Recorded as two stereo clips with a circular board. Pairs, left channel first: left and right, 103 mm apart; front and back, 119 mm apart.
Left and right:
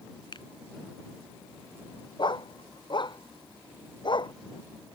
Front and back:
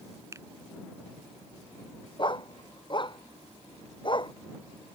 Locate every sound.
0.3 s a finger snap: 120° left
2.2 s a dog barking: 45° left